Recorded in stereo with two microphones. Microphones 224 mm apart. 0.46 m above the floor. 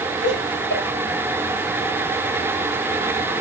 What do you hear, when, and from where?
0.2 s laughter: 55° left (ahead or behind), 9 m